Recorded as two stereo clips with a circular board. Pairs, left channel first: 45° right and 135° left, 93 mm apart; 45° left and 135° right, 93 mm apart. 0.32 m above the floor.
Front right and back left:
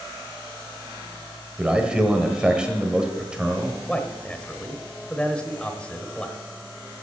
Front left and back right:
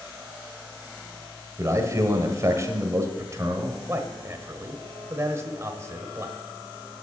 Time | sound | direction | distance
1.6 | a man speaking | 150° right | 1.6 m
3.9 | a man speaking | 110° right | 1.1 m